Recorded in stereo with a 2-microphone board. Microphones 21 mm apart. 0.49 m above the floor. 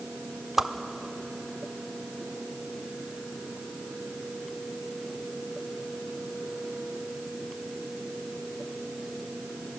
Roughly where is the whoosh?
Centre.